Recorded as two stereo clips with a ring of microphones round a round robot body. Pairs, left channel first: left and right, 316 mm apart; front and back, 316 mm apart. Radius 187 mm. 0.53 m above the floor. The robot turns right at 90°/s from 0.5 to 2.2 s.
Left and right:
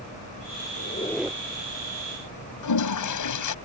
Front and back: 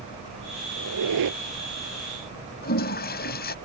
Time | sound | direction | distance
0.8 | a squeak | 140° left | ?
2.6 | a toilet flushing | 65° left | ?